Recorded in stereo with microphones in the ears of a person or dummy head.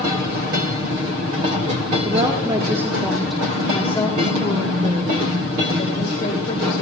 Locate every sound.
2.0 s a woman speaking: 30° right (ahead or behind), 1.3 m; by 6.8 s 40° left (ahead or behind), 2.5 m